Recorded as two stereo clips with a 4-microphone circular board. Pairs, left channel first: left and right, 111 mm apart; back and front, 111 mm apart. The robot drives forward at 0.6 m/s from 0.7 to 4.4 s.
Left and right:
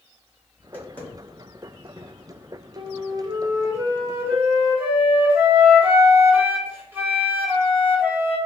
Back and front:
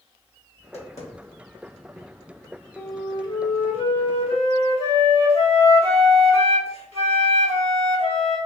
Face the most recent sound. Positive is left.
turn(degrees=-160)